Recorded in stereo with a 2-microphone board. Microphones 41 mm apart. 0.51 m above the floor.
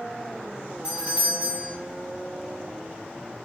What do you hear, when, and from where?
0.8 s a doorbell: 30° right (ahead or behind), 1.7 m